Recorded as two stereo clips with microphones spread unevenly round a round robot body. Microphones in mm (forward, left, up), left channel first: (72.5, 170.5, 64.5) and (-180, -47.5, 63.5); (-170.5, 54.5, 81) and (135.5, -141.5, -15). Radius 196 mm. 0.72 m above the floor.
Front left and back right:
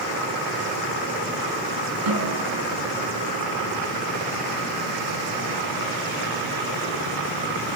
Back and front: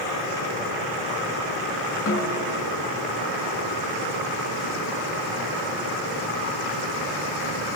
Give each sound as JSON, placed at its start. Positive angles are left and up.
{"t": 2.1, "sound": "a snare drum", "azimuth_deg": -155, "distance_m": 6.5}